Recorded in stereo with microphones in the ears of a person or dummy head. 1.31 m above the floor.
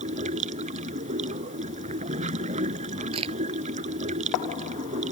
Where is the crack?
30° right (ahead or behind).